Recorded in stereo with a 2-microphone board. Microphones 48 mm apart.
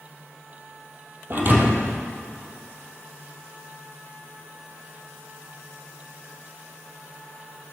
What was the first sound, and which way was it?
A thud, 45° right (ahead or behind).